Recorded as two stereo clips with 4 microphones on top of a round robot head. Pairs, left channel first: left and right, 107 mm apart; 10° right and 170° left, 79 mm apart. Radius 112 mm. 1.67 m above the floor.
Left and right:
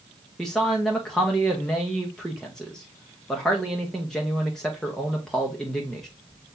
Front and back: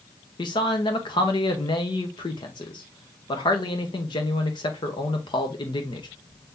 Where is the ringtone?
No ringtone in this recording.